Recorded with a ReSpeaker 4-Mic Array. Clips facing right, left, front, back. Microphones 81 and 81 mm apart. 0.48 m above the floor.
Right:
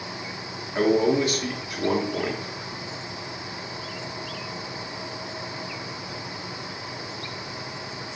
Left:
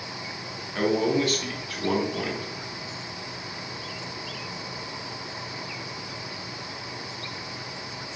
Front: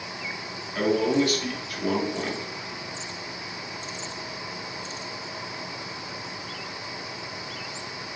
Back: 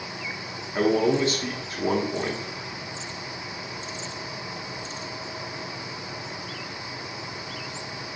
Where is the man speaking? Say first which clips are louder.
Right 3 dB, back 1 dB; 140° right, 1.0 m.